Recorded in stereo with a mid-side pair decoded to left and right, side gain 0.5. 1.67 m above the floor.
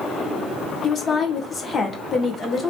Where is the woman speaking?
35° left, 1.1 m.